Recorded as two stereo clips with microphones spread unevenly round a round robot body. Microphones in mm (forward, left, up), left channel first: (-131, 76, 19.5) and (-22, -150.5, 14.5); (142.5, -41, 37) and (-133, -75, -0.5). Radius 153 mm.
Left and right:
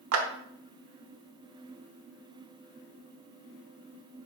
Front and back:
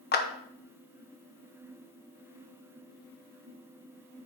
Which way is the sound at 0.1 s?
50° right.